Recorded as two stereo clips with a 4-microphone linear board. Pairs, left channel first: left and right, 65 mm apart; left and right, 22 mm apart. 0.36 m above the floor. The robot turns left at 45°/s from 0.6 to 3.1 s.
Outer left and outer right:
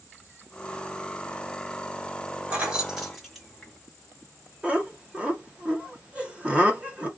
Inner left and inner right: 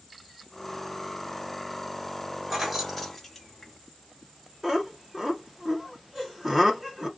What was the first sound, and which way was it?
Keys jangling, 20° right (ahead or behind).